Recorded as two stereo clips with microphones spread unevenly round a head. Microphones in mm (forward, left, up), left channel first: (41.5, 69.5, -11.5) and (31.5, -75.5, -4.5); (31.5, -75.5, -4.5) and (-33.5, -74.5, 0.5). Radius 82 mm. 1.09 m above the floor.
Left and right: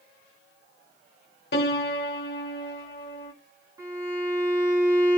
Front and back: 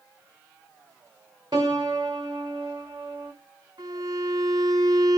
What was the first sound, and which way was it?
A piano, 115° left.